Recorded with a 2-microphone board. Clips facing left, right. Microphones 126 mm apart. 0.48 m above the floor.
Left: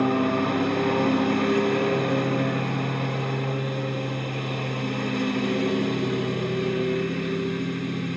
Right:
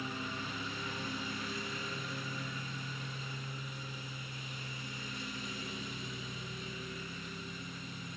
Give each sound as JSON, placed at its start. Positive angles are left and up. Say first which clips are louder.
{"t": 0.0, "sound": "a lawn mower", "louder": "left 20 dB", "side_deg": 80}